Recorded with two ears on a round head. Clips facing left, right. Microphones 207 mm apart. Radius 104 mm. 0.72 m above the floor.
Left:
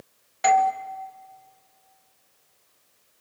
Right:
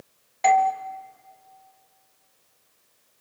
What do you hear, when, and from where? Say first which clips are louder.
0.4 s a doorbell: even; 15° left (ahead or behind), 0.9 m